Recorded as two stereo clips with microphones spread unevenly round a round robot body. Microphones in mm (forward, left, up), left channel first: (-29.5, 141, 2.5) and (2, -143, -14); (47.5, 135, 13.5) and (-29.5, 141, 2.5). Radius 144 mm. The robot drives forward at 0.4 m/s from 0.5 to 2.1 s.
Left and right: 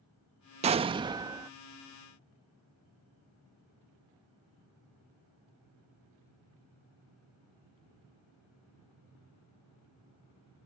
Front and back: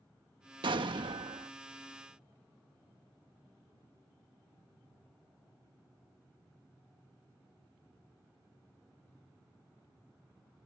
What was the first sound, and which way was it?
An explosion, 155° right.